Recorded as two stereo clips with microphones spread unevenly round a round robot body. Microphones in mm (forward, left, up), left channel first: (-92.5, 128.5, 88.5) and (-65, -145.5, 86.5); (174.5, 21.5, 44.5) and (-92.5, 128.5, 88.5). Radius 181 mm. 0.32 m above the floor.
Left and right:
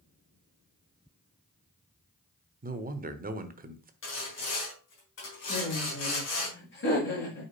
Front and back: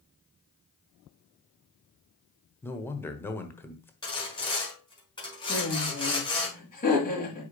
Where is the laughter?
40° left, 5.5 m.